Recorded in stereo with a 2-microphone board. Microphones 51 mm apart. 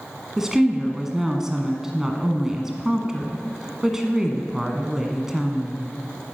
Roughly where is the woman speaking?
Centre.